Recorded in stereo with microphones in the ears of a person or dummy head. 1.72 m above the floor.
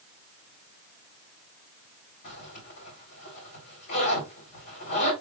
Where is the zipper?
60° left (ahead or behind), 3 m.